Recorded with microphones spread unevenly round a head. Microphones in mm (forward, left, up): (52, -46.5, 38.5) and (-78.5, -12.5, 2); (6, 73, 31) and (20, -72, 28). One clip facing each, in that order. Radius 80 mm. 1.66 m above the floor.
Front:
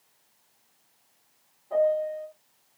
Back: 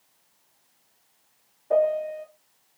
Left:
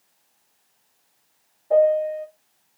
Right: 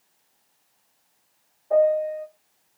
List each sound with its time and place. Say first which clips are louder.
1.7 s a piano: back 2 dB, left 2 dB; 160° left, 1.0 m